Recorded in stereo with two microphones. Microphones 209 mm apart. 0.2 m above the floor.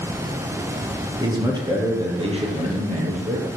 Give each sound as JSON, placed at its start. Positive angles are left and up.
{"t": 1.2, "sound": "a man speaking", "side_deg": -15, "distance_m": 4.5}